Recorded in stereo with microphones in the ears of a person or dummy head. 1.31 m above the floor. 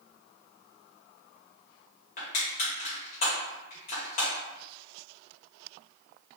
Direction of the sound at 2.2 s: 50° left (ahead or behind).